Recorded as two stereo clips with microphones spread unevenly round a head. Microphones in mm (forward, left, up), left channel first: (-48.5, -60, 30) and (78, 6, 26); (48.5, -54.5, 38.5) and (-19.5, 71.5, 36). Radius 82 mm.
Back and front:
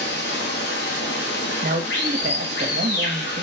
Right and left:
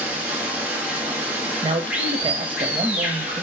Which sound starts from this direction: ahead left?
A man speaking, at 1.6 s.